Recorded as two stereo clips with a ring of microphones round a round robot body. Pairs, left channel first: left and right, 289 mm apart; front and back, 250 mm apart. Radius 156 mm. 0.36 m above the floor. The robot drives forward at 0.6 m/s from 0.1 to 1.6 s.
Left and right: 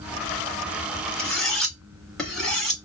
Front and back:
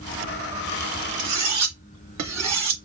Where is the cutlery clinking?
Straight behind, 1.5 m.